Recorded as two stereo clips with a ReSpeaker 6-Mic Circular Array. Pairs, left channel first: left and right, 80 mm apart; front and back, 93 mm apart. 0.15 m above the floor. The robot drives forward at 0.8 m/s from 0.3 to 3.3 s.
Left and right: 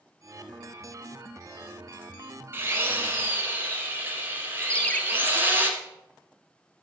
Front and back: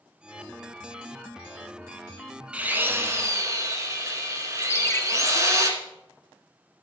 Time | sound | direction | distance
2.5 | a drill | 115° right | 1.4 m
4.7 | a ringtone | 30° left | 0.6 m